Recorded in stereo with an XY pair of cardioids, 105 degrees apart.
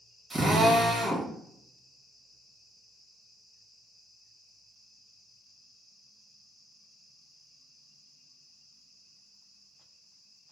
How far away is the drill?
About 1.3 m.